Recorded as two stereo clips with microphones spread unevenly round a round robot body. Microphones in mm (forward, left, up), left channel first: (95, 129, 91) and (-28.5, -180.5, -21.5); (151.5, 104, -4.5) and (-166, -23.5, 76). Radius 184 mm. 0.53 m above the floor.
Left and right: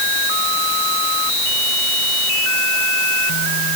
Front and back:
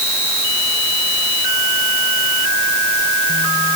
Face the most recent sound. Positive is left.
No sound to turn to.